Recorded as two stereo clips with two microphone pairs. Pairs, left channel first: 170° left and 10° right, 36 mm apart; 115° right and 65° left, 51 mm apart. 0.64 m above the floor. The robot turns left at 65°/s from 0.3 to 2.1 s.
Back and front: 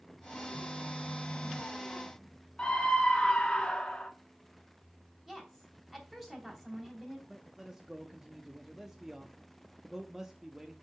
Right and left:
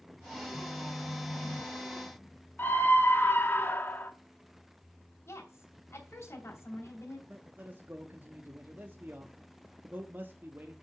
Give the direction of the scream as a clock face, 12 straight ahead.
5 o'clock.